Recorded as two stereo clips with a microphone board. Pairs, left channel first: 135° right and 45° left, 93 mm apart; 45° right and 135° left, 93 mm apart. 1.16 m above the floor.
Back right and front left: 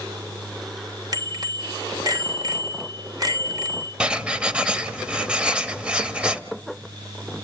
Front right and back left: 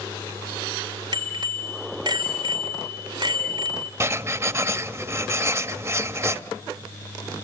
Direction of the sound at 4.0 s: 115° left.